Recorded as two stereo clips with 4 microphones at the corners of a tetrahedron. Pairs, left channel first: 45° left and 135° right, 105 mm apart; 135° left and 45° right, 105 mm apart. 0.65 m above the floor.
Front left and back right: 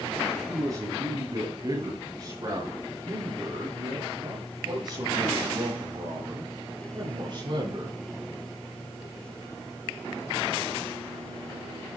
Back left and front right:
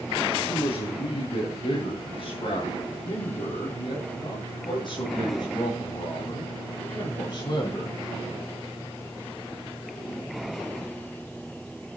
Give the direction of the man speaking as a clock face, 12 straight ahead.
6 o'clock.